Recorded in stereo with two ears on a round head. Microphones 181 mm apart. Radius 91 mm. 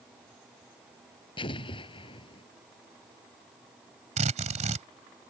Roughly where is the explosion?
Left.